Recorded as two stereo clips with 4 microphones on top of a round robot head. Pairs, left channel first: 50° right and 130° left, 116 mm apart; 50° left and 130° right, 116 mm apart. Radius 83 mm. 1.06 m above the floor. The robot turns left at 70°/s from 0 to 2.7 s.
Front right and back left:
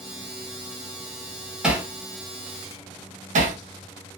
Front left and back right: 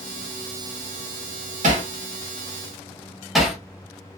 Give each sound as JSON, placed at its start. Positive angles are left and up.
{"t": 1.6, "sound": "hammering", "azimuth_deg": -145, "distance_m": 0.8}